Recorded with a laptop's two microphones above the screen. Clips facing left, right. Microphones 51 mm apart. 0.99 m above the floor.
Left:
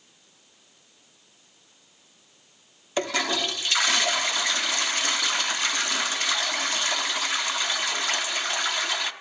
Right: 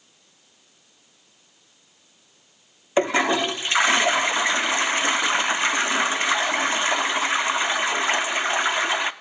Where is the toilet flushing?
25° right (ahead or behind), 0.5 m.